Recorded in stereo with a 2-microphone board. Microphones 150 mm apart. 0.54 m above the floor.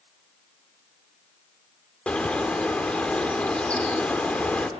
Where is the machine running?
No machine running in this recording.